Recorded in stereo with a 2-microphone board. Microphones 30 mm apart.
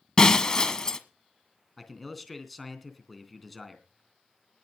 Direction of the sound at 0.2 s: 25° left (ahead or behind).